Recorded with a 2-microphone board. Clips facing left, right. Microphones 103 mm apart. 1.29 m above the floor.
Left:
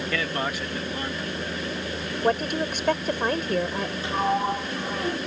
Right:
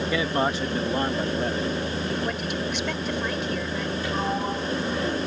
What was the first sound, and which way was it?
A man speaking, 15° right (ahead or behind).